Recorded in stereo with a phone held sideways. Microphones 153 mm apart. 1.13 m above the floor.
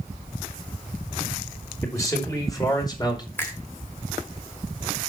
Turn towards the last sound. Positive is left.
turn(degrees=15)  # may be behind; listen again after turning